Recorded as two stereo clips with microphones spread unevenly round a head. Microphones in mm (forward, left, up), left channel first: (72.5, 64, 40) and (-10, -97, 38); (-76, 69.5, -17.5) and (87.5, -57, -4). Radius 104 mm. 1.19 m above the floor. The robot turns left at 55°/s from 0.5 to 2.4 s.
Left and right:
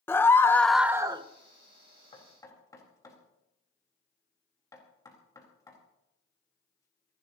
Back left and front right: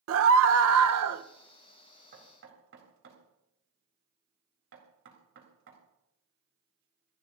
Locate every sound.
0.1 s a scream: 15° right, 1.0 m; by 1.2 s 55° right, 1.0 m
2.1 s knocking: 5° left, 4 m; by 7.2 s 10° right, 4 m